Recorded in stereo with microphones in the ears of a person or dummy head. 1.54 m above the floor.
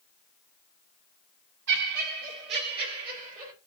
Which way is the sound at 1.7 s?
65° right (ahead or behind).